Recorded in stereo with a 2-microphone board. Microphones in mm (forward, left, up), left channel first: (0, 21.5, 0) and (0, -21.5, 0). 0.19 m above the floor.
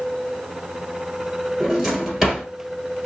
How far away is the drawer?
About 1.3 m.